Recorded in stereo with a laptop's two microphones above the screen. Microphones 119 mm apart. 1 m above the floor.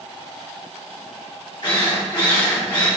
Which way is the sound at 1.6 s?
45° left (ahead or behind).